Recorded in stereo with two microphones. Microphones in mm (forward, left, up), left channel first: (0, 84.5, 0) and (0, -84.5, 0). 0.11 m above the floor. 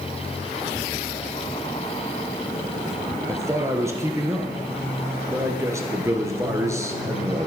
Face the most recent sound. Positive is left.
turn(degrees=-15)  # may be behind; listen again after turning